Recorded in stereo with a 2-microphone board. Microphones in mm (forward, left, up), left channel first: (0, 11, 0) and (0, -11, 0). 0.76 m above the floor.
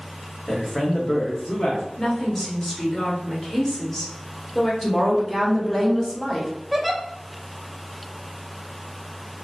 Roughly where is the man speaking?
Left.